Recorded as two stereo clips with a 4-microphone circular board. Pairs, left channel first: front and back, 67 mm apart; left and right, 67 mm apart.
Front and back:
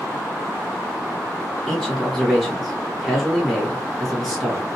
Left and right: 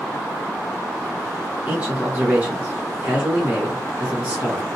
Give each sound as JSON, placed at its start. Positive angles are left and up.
{"t": 1.7, "sound": "a man speaking", "azimuth_deg": -90, "distance_m": 1.7}